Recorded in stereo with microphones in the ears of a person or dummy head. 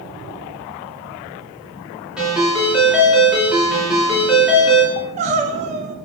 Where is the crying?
30° right (ahead or behind), 0.7 m.